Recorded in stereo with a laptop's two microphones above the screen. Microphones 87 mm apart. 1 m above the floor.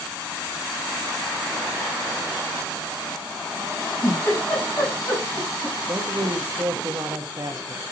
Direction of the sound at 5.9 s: 45° right (ahead or behind).